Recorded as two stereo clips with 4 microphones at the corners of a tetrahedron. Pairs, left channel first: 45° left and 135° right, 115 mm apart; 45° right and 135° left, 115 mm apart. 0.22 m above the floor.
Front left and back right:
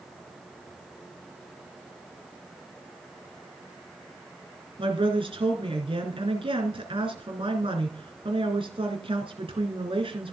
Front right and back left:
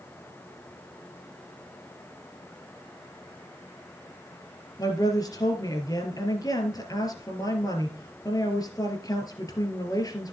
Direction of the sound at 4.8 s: 100° right.